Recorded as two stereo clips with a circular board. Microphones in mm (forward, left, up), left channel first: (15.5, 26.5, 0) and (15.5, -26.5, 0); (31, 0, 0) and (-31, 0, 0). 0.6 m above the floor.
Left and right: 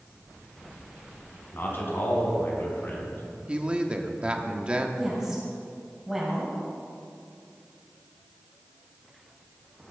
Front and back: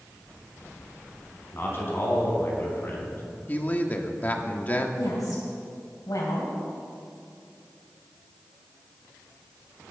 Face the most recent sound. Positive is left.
turn(degrees=0)